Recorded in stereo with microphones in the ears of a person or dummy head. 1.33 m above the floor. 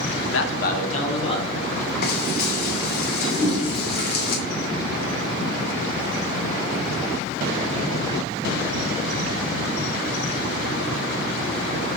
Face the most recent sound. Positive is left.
turn(degrees=-15)  # may be behind; listen again after turning